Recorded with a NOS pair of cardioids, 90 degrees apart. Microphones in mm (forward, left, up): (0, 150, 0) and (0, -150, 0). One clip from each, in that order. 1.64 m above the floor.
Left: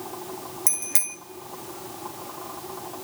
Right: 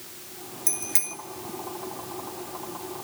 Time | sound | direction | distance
0.7 | a bicycle bell | 40° left | 2.5 m